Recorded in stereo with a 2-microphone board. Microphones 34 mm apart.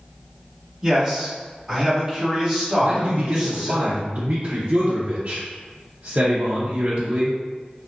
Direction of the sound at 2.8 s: 45° right (ahead or behind).